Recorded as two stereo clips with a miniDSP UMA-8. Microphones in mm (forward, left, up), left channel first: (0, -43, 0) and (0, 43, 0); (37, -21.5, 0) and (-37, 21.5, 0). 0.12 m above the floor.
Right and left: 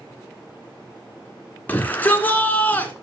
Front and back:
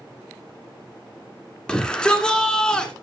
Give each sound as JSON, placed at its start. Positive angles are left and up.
{"t": 1.7, "sound": "a shout", "azimuth_deg": -90, "distance_m": 1.5}